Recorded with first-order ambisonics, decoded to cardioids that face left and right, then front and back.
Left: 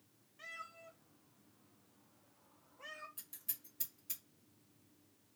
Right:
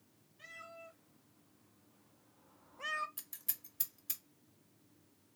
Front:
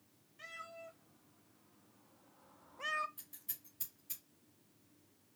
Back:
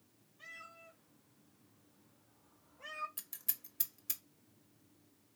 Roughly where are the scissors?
Behind right.